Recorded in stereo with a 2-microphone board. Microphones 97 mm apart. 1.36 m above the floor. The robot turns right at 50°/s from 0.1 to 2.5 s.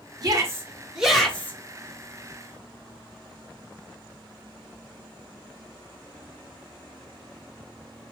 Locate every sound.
0.2 s a shout: 45° right, 1.4 m; by 1.6 s 25° left, 1.4 m